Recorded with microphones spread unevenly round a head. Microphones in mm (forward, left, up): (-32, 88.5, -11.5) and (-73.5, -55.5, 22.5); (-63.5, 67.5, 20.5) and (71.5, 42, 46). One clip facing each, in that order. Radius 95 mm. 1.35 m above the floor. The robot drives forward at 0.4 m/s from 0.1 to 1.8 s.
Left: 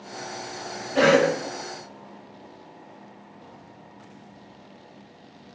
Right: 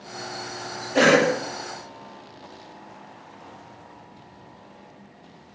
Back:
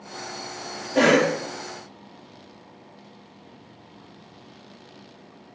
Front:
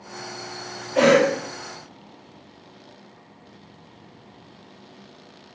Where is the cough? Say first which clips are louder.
Even, front 2 dB; 145° right, 1.1 m; by 1.3 s 150° right, 1.2 m.